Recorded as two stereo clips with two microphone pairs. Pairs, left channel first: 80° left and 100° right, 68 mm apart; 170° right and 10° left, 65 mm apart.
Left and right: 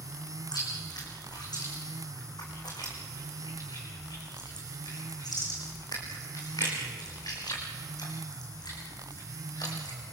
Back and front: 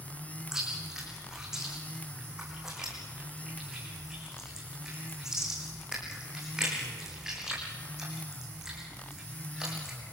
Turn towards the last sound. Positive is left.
turn(degrees=90)